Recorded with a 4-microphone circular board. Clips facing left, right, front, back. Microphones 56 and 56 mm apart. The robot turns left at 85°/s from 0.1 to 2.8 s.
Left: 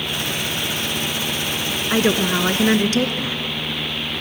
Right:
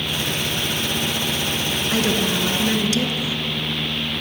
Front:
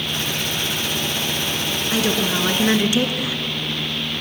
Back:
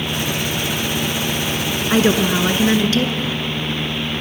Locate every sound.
1.9 s a woman speaking: 145° left, 1.5 m; by 3.4 s 70° left, 1.5 m